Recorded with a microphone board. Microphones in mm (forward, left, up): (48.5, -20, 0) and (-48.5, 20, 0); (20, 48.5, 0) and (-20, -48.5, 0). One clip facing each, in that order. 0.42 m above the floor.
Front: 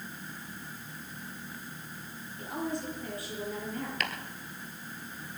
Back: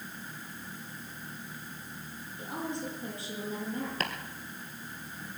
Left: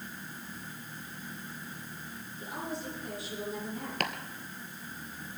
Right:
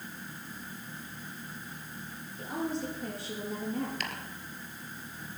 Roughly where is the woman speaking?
Behind right.